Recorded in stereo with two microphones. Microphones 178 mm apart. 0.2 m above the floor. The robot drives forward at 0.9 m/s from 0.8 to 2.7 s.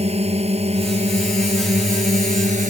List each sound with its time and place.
0.0 s a drone: 35° right (ahead or behind); by 2.7 s 45° right (ahead or behind)